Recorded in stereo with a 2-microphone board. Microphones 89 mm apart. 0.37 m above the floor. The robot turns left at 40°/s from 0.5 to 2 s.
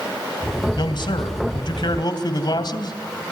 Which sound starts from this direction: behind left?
A man speaking, at 0.8 s.